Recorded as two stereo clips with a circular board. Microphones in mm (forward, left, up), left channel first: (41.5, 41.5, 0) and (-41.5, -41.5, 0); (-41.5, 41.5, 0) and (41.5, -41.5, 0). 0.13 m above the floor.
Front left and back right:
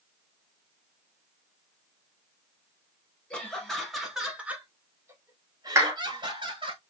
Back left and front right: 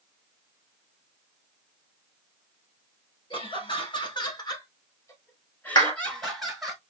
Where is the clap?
170° left, 1.7 m.